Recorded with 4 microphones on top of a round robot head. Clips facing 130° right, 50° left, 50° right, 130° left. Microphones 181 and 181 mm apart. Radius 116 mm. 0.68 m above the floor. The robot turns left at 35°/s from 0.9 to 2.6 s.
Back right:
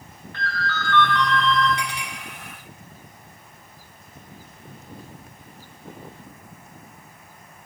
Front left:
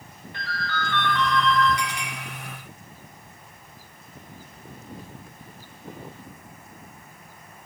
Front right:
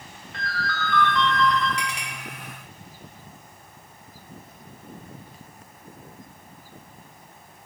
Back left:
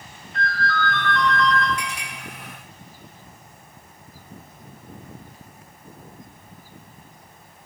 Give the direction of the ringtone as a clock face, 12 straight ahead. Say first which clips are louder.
Back right 2 dB, back left 6 dB; 1 o'clock.